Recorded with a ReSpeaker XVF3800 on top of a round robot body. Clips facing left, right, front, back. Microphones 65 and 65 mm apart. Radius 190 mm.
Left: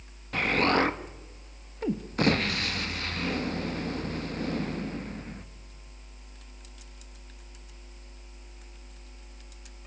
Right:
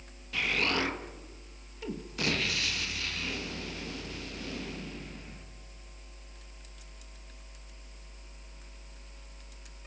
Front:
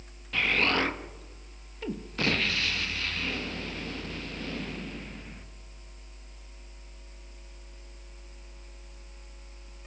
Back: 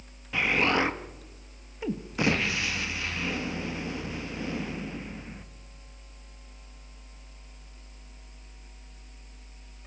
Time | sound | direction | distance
0.3 | an explosion | 110° left | 1.6 m